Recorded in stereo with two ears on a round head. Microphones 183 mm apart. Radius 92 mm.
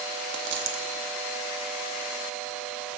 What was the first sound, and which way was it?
A dropped coin, 60° right (ahead or behind).